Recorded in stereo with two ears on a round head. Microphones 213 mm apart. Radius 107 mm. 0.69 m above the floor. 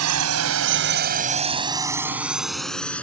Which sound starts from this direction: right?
A drone, at 0.0 s.